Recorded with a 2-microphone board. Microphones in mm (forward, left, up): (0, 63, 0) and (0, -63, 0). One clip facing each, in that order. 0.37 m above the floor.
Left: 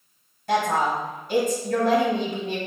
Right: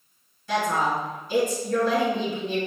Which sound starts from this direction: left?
A woman speaking, at 0.5 s.